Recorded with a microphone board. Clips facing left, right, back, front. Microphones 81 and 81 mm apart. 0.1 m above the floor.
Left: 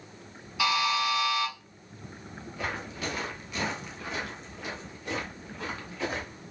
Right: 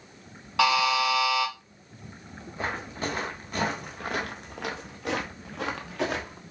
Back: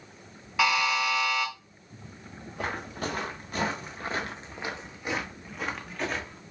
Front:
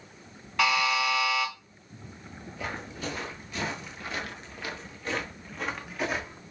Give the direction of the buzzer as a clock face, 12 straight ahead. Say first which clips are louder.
Right 4 dB, even; 3 o'clock.